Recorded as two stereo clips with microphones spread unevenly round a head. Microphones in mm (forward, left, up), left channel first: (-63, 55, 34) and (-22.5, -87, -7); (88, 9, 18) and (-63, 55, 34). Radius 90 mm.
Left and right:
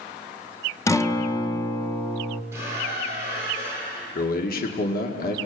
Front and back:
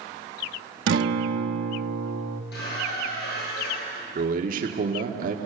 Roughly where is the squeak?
Ahead.